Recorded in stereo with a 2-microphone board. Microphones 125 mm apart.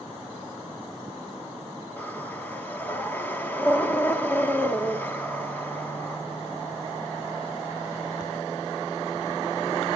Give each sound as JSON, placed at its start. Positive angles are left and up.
{"t": 2.0, "sound": "breathing", "side_deg": 15, "distance_m": 2.5}